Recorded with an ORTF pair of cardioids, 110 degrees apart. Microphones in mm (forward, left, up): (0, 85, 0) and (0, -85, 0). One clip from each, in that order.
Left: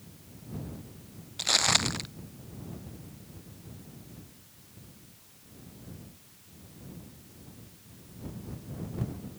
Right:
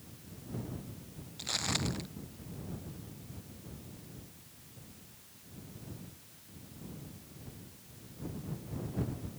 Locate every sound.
1.4 s footsteps: 55° left